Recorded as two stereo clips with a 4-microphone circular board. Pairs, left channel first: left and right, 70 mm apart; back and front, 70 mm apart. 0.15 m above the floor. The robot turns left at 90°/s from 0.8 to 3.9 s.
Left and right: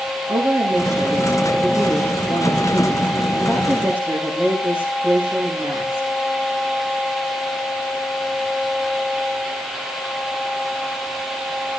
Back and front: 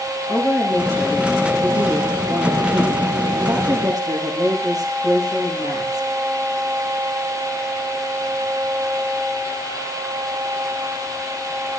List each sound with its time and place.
0.3 s a woman speaking: 105° right, 8.5 m; by 6.1 s 25° right, 8.5 m